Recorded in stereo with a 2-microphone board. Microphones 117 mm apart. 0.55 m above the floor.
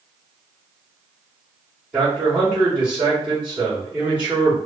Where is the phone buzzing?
I don't hear a phone buzzing.